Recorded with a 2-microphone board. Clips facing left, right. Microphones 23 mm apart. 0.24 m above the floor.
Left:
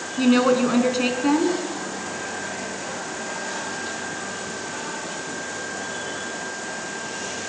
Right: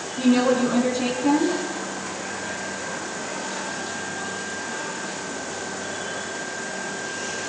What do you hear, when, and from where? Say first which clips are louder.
0.2 s a woman speaking: left 1 dB; 35° left (ahead or behind), 2.5 m